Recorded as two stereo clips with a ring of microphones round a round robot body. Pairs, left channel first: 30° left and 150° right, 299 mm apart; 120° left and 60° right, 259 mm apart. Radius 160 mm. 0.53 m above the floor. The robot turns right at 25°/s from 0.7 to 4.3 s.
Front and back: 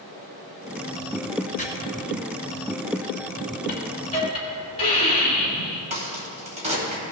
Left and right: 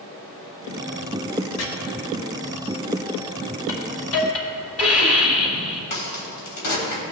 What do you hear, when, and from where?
1.6 s chopping: 95° left, 1.5 m
3.7 s a hiss: 85° left, 3.5 m; by 5.8 s 100° left, 3.5 m
5.9 s a crack: 140° left, 2.5 m